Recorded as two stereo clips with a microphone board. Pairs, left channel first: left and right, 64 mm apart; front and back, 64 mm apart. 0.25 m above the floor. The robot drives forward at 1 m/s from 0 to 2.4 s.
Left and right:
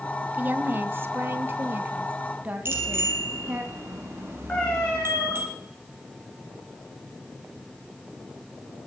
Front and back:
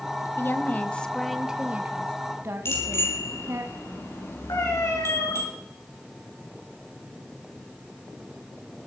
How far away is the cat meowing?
About 8.5 m.